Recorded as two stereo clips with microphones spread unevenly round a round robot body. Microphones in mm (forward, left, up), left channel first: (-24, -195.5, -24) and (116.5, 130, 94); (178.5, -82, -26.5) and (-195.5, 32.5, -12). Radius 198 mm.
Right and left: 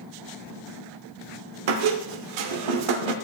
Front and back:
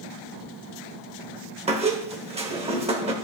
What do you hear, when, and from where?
1.7 s a squeak: 85° left, 1.0 m